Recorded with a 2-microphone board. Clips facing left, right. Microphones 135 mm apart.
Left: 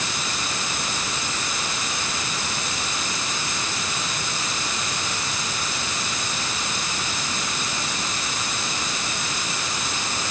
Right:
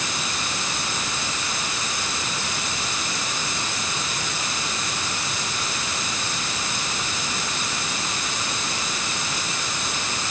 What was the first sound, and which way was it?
Only background noise.